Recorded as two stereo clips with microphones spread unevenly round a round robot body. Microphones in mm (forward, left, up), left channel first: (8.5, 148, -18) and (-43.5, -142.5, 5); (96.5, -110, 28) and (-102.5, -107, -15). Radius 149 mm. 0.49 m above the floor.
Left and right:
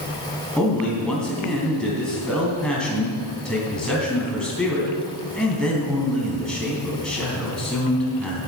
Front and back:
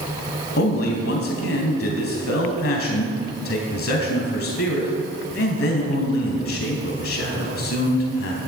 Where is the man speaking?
10° right, 3.5 m.